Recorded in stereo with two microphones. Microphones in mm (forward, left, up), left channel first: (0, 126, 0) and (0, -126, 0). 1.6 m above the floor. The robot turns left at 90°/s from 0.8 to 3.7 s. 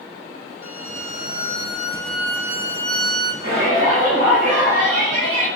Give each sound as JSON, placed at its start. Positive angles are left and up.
{"t": 0.6, "sound": "a violin", "azimuth_deg": 120, "distance_m": 1.3}
{"t": 3.4, "sound": "a shout", "side_deg": -85, "distance_m": 2.5}